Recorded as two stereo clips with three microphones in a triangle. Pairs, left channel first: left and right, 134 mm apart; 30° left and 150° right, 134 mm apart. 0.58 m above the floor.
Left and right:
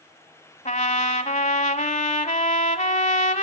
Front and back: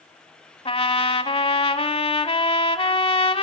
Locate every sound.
0.7 s a trumpet: 70° left, 1.0 m